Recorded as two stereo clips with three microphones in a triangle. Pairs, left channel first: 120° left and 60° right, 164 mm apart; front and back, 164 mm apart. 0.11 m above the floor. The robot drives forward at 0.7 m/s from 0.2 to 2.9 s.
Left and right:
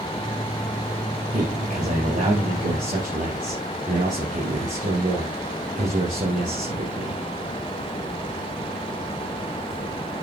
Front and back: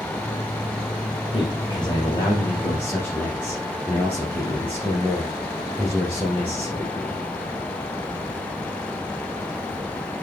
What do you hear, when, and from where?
1.3 s a man speaking: 50° right, 3 m; by 7.2 s 75° right, 2.5 m